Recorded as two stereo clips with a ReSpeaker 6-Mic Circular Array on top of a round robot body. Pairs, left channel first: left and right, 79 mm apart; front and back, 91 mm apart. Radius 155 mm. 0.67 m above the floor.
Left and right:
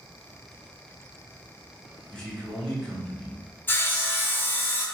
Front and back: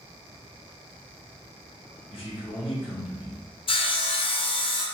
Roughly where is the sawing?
Ahead left.